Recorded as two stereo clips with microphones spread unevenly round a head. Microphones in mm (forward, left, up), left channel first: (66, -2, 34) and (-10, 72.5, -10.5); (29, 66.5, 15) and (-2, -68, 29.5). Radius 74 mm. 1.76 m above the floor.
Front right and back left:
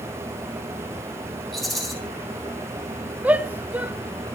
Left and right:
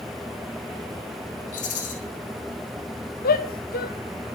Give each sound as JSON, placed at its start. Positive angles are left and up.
{"t": 1.5, "sound": "a rattle", "azimuth_deg": 40, "distance_m": 8.0}
{"t": 3.2, "sound": "a shout", "azimuth_deg": 50, "distance_m": 1.9}